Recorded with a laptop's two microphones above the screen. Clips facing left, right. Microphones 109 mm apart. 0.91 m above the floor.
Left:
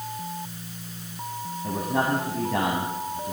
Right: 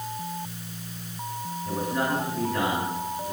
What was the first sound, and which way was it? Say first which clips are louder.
A man speaking: left 2 dB; 75° left (ahead or behind).